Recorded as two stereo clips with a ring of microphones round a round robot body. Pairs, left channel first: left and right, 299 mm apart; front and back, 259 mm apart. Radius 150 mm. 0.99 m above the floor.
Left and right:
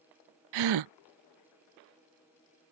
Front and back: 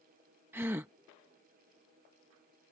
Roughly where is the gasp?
Right.